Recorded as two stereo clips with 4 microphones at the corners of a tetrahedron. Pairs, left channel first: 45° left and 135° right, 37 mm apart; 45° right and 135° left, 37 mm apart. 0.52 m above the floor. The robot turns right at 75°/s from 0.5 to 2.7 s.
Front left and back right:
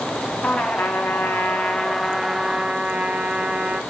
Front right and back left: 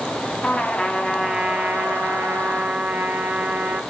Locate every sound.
0.4 s a trumpet: 10° left, 1.5 m; by 3.8 s 175° left, 1.5 m